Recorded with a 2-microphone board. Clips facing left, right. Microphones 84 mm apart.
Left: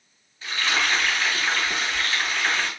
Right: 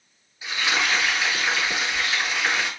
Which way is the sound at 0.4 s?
10° right (ahead or behind).